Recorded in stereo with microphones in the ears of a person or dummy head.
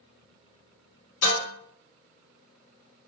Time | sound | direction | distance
1.2 | dishes clattering | 55° left (ahead or behind) | 1.2 m